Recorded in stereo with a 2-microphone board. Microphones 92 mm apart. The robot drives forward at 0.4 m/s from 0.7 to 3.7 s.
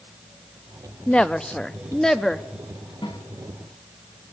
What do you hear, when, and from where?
1.1 s a woman speaking: 10° left (ahead or behind), 0.6 m; by 2.5 s 5° left (ahead or behind), 1.1 m
3.0 s a snare drum: 60° left (ahead or behind), 3 m; by 3.2 s 65° left (ahead or behind), 3 m